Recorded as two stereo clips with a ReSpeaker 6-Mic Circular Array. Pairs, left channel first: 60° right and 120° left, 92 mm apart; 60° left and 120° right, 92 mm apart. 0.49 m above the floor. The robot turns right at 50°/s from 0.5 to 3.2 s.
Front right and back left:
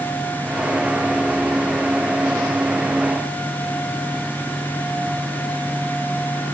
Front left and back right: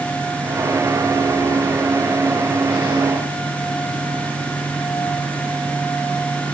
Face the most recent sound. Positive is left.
No sound to turn to.